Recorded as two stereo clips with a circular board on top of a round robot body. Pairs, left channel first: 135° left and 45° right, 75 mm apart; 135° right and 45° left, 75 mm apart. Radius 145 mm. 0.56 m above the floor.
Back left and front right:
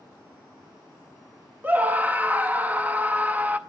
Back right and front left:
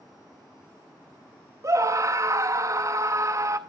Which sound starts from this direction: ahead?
A scream, at 1.6 s.